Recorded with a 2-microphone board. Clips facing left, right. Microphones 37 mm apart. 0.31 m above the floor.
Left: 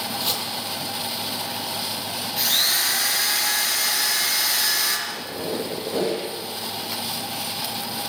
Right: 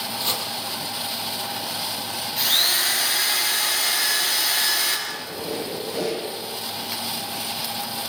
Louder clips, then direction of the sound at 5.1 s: Left 1 dB; 35° left (ahead or behind).